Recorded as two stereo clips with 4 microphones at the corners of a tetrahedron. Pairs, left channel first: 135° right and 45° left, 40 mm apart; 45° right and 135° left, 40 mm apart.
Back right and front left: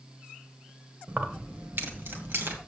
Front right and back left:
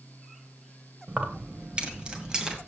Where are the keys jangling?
90° left, 1.3 m; by 2.6 s 60° left, 2 m.